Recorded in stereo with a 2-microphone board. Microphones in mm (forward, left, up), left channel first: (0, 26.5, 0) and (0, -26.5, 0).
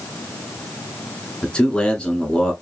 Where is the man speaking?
20° left (ahead or behind), 1.0 m.